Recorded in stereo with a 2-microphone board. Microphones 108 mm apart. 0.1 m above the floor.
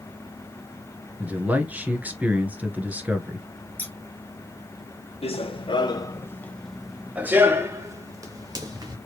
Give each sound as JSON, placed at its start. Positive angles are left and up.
{"t": 1.2, "sound": "a man speaking", "side_deg": -15, "distance_m": 1.4}
{"t": 3.8, "sound": "scissors", "side_deg": 15, "distance_m": 1.7}
{"t": 5.2, "sound": "running footsteps", "side_deg": 65, "distance_m": 1.1}